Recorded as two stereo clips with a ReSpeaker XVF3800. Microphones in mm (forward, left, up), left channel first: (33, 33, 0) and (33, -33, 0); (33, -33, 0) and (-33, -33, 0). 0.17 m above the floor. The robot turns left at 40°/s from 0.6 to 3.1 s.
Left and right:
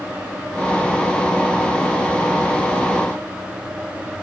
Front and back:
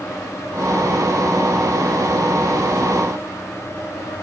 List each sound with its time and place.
Only background noise.